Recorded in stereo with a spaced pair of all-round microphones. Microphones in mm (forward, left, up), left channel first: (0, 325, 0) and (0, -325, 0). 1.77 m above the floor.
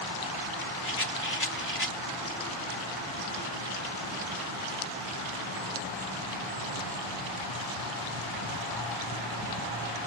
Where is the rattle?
20° left (ahead or behind).